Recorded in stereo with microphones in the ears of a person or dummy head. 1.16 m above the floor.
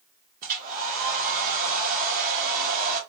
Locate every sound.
0.4 s a hair dryer: 45° right (ahead or behind), 0.8 m